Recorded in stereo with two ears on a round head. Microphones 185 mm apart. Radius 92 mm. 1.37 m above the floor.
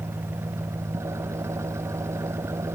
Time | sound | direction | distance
0.0 | an engine running | 15° right (ahead or behind) | ?